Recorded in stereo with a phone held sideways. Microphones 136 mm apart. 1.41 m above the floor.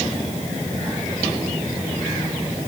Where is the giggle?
I don't hear a giggle.